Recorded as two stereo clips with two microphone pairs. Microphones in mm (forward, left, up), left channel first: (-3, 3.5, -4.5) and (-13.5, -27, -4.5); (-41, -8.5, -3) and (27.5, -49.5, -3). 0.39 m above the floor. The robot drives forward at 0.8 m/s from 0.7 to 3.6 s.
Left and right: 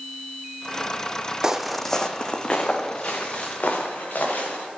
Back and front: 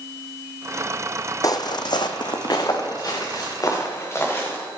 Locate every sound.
1.4 s footsteps: straight behind, 0.7 m; by 4.7 s 85° left, 3 m